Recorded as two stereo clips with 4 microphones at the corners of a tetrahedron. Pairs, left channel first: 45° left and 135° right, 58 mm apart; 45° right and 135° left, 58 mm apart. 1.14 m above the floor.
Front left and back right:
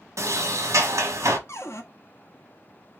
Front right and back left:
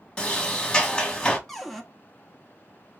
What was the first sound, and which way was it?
A sliding door, 115° right.